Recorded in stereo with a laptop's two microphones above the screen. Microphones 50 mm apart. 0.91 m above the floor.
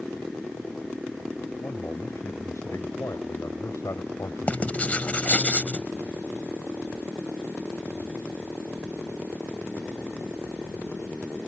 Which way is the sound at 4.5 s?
30° left (ahead or behind).